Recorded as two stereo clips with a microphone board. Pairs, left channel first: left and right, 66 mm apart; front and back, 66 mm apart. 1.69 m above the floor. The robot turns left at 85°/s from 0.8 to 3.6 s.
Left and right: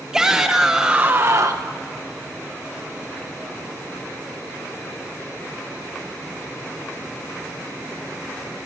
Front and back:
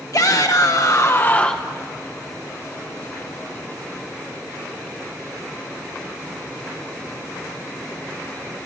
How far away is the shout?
About 1.0 m.